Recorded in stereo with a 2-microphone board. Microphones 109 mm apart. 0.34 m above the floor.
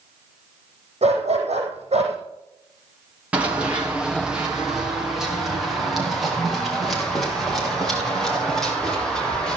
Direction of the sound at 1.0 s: 70° right (ahead or behind).